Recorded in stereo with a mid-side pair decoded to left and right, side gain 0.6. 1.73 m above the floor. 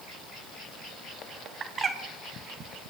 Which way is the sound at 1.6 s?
35° right.